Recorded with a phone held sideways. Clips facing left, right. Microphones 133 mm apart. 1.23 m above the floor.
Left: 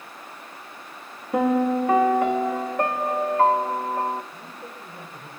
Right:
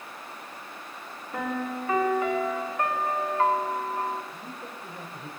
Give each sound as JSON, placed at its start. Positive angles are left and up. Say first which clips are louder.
{"t": 1.3, "sound": "a piano", "louder": "left 11 dB", "side_deg": 75, "distance_m": 2.5}
{"t": 4.3, "sound": "a man speaking", "louder": "even", "side_deg": 5, "distance_m": 5.0}